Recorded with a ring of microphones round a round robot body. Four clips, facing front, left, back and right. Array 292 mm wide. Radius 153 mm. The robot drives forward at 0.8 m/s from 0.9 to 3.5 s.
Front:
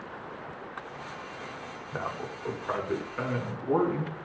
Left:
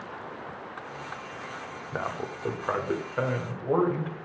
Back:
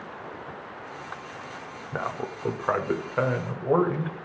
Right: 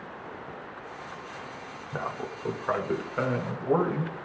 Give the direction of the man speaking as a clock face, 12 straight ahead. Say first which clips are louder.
Left 1 dB, back 4 dB; 7 o'clock.